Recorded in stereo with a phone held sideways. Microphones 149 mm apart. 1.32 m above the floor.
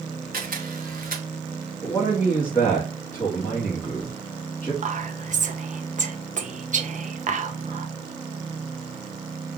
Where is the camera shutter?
75° right (ahead or behind), 1.3 m.